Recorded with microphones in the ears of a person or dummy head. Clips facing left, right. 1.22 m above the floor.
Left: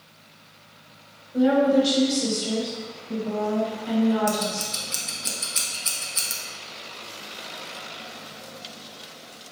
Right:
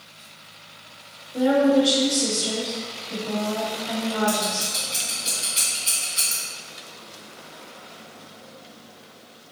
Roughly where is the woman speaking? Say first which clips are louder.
Right 1 dB; left.